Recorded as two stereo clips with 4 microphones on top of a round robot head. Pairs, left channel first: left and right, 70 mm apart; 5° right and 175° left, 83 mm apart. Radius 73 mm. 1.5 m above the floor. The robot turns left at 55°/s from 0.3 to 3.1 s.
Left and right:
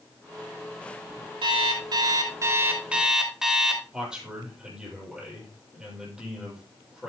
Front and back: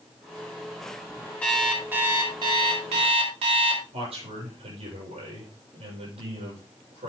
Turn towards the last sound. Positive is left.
turn(degrees=-170)